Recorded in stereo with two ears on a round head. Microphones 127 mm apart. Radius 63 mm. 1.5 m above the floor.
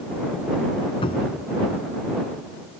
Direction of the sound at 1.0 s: 35° left (ahead or behind).